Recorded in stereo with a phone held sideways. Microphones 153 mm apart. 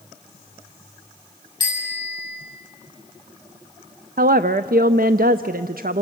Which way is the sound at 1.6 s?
30° left (ahead or behind).